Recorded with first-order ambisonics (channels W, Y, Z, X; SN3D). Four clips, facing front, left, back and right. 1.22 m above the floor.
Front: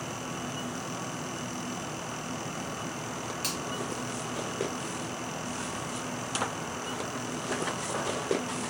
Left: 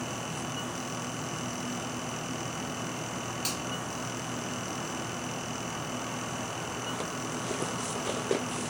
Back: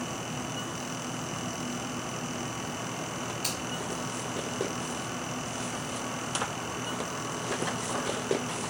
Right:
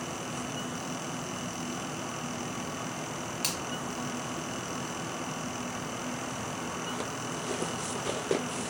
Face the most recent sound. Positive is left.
turn(degrees=-75)